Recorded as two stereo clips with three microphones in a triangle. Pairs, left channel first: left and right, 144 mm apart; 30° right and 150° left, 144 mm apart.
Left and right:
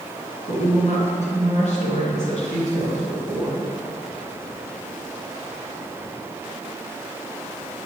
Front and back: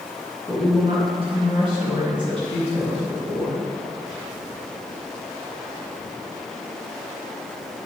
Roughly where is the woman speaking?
Left.